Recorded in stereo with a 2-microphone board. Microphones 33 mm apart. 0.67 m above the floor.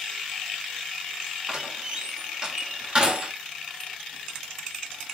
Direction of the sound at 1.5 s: 30° right (ahead or behind).